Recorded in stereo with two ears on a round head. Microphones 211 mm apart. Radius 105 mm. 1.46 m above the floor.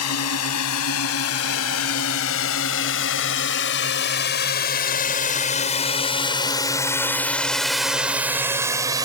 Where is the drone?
75° left (ahead or behind); by 9.1 s 15° right (ahead or behind).